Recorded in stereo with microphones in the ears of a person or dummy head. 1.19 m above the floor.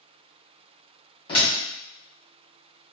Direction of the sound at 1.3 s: 30° left (ahead or behind).